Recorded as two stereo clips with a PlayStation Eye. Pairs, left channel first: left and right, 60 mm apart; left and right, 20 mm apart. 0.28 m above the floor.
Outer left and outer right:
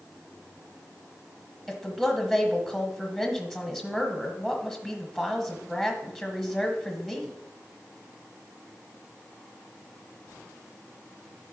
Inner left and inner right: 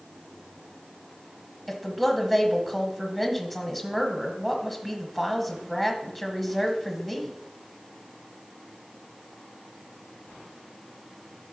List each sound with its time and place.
1.7 s a woman speaking: centre (ahead or behind), 1.3 m